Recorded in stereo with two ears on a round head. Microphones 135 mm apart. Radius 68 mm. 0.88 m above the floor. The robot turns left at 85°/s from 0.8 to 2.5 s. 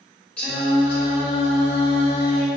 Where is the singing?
170° left, 1.2 m; by 2.5 s 30° left, 1.2 m.